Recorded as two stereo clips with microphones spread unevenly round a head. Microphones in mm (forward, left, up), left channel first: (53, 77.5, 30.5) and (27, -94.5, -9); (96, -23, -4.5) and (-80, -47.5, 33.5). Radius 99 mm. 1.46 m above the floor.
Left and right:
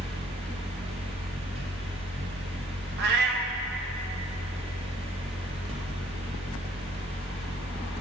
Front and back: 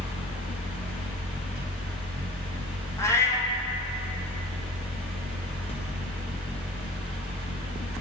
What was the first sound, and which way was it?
A fan, 45° right.